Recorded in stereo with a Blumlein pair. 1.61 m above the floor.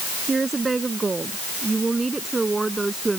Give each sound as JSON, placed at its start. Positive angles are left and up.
{"t": 0.3, "sound": "a woman speaking", "azimuth_deg": -15}